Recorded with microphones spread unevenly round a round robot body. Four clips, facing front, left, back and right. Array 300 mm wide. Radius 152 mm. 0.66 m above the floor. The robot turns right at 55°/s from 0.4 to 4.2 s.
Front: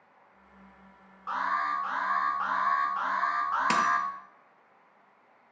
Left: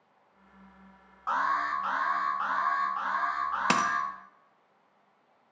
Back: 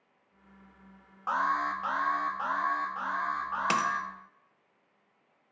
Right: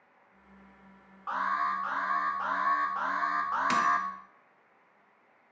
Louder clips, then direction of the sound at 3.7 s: Right 1 dB, front 2 dB; 85° left.